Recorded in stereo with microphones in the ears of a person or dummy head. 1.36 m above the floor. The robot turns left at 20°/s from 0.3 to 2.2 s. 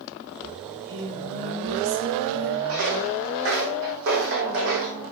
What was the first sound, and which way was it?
Singing, 75° right.